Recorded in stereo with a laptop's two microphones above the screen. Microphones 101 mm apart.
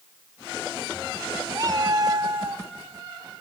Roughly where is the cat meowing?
Right.